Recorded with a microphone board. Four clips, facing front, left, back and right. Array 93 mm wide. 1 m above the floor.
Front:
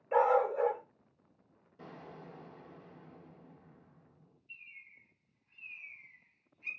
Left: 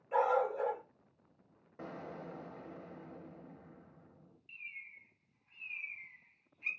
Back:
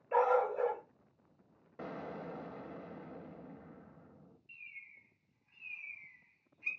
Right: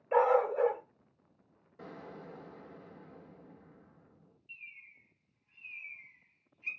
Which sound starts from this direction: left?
A bird, at 4.5 s.